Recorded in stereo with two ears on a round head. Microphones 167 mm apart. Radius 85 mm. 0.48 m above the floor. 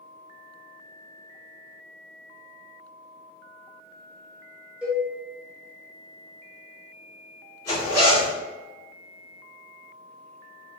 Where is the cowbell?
5° right (ahead or behind), 1.2 m.